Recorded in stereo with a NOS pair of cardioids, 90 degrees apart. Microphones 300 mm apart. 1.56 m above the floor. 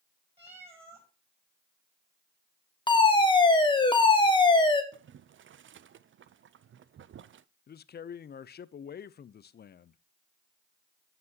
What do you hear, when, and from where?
0.4 s a cat meowing: 20° right, 5 m
2.9 s a fire alarm: 15° left, 1.6 m
4.9 s boiling: 40° right, 0.5 m
7.7 s a man speaking: 35° left, 0.5 m